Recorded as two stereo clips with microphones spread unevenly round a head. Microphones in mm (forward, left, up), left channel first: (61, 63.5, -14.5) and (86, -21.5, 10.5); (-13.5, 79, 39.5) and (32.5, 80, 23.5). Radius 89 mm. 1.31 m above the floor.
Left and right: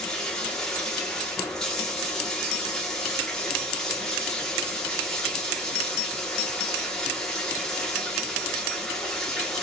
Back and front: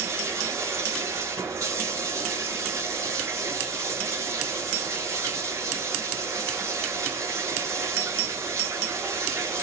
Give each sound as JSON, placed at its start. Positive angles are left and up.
{"t": 0.0, "sound": "running water", "azimuth_deg": 20, "distance_m": 1.9}